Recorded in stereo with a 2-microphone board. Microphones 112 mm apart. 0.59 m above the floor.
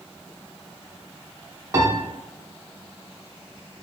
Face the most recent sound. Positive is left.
turn(degrees=-30)  # may be behind; listen again after turning